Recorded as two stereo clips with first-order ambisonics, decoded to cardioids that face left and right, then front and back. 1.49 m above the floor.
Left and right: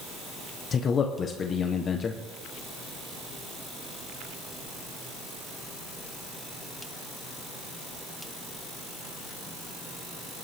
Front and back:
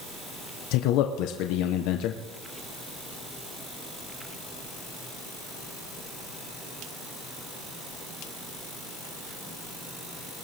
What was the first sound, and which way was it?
A man speaking, 25° left.